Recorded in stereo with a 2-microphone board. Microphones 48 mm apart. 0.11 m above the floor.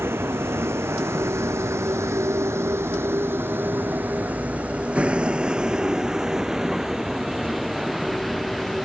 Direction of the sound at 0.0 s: 60° right (ahead or behind).